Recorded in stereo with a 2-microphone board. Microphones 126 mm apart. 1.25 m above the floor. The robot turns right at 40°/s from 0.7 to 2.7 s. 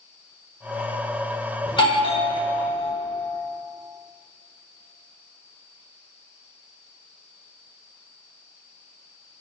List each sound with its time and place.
1.7 s a doorbell: 70° left, 1.3 m; by 2.9 s 110° left, 1.3 m